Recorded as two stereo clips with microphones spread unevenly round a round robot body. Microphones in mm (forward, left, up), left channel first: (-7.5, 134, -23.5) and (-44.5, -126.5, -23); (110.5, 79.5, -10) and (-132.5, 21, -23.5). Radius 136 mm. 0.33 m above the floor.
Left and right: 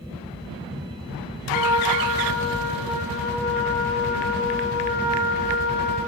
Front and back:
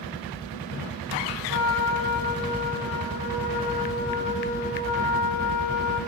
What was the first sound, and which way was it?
A trumpet, 40° left.